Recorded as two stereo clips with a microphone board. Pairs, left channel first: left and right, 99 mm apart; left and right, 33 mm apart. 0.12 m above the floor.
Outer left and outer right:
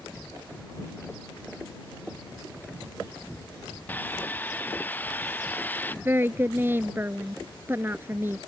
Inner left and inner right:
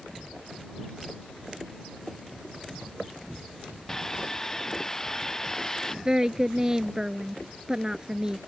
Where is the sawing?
20° left (ahead or behind).